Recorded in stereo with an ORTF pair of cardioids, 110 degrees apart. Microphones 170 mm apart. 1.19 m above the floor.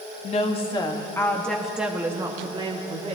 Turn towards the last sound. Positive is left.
turn(degrees=-35)